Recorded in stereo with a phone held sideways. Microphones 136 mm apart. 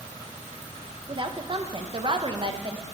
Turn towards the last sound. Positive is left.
turn(degrees=-40)  # may be behind; listen again after turning